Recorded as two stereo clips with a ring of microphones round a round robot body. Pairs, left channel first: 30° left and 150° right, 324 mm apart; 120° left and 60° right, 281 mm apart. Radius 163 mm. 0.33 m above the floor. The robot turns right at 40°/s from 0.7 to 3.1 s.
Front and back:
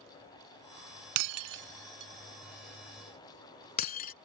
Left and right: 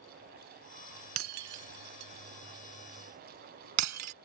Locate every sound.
1.2 s breaking glass: 110° right; by 4.1 s 35° right